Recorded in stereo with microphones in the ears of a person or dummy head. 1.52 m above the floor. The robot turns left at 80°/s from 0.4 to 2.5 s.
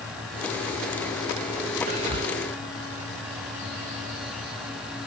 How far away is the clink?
I don't hear a clink.